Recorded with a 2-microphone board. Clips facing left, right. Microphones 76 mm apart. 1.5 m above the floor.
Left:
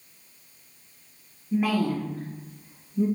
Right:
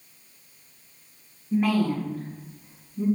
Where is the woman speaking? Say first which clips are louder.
Right 1 dB; 5° right (ahead or behind), 1.0 m; by 3.1 s 45° left (ahead or behind), 2.0 m.